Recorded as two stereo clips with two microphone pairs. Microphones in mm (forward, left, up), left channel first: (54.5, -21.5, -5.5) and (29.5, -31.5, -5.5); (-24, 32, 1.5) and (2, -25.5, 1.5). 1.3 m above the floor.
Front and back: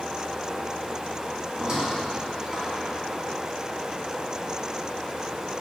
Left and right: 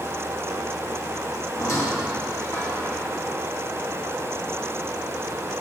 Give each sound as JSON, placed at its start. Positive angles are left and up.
{"t": 1.5, "sound": "a squeak", "azimuth_deg": 145, "distance_m": 2.5}